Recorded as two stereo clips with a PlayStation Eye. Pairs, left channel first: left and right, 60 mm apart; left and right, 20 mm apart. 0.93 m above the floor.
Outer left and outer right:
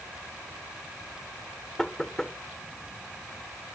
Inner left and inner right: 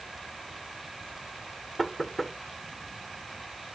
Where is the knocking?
10° left (ahead or behind).